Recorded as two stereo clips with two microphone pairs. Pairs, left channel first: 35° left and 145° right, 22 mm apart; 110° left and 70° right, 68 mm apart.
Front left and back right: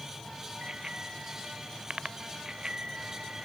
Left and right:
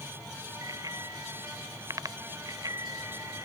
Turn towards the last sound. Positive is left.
turn(degrees=-105)